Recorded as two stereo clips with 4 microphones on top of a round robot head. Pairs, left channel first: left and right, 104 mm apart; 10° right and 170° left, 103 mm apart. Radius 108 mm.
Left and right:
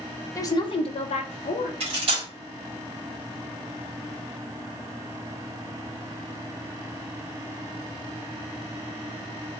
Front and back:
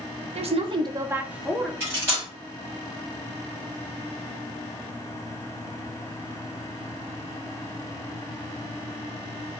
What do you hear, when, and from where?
0.3 s a woman speaking: 155° left, 0.6 m; by 1.7 s 80° left, 0.8 m
1.8 s cutlery clinking: 115° right, 1.1 m